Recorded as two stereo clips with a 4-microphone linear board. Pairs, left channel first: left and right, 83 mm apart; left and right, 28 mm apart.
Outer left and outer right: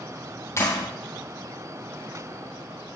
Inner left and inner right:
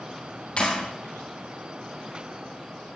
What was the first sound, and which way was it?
A clap, 35° left (ahead or behind).